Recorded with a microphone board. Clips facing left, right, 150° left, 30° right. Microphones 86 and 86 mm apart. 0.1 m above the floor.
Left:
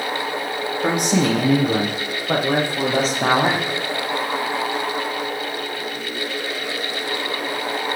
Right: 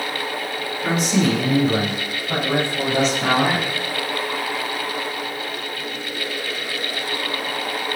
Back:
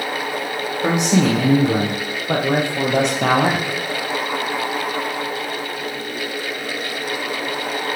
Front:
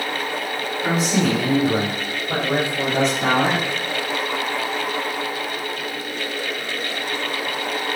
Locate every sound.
0.8 s a man speaking: 125° left, 4.5 m; by 3.7 s 145° left, 1.9 m